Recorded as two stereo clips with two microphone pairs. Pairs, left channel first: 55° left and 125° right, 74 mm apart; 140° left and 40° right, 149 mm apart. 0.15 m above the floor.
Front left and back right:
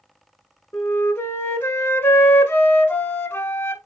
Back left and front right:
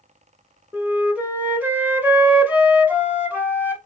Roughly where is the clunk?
No clunk in this recording.